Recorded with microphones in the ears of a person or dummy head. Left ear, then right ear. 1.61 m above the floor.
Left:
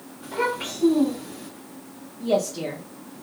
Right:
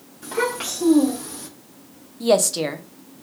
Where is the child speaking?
25° right (ahead or behind), 1.4 m; by 1.5 s 75° right (ahead or behind), 1.3 m.